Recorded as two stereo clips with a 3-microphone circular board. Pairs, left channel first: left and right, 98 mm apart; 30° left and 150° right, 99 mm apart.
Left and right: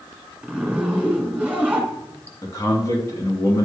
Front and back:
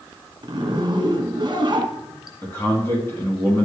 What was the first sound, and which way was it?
A zipper, 170° right.